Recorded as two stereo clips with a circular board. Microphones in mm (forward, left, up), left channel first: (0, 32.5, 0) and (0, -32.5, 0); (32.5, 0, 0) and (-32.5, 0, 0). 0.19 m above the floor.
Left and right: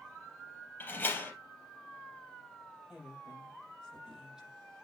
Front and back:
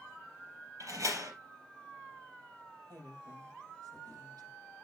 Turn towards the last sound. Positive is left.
turn(degrees=-170)